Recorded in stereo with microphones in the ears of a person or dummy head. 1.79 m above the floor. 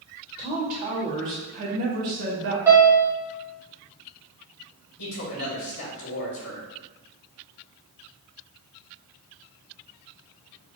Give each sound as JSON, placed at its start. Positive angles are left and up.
{"t": 0.4, "sound": "a woman speaking", "side_deg": -40, "distance_m": 1.7}
{"t": 2.7, "sound": "a piano", "side_deg": -10, "distance_m": 1.0}
{"t": 5.0, "sound": "a man speaking", "side_deg": 75, "distance_m": 1.5}